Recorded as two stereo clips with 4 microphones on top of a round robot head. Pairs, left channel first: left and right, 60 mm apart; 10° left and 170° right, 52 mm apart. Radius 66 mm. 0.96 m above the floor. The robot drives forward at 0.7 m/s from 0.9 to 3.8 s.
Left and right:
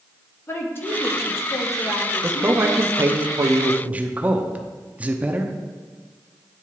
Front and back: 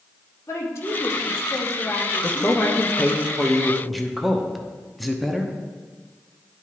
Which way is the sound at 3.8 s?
80° right.